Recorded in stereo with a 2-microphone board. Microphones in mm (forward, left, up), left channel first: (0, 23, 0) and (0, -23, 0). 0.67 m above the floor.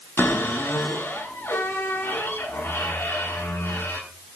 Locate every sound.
0.2 s a cupboard door: 65° left (ahead or behind), 9.5 m